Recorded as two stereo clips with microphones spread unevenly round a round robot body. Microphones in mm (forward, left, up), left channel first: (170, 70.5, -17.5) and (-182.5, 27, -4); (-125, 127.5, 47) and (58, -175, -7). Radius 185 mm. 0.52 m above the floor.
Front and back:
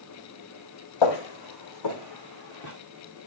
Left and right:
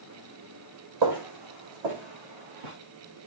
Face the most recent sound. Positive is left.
turn(degrees=-50)